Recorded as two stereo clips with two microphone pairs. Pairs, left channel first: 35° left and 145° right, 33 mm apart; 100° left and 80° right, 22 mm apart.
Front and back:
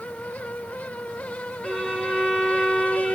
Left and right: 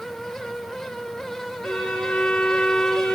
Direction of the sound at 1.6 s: 120° left.